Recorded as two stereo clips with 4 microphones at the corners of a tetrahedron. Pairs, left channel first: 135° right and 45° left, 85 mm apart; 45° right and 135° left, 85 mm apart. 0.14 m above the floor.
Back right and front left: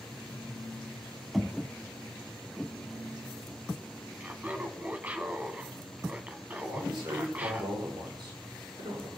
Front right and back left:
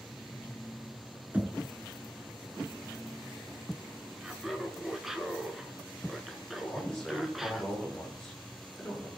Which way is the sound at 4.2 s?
55° left.